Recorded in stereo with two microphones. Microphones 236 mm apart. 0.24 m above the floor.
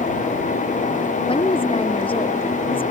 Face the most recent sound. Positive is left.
turn(degrees=20)  # may be behind; listen again after turning